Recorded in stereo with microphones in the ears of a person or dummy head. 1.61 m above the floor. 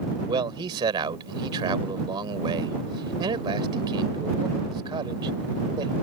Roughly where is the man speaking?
Centre.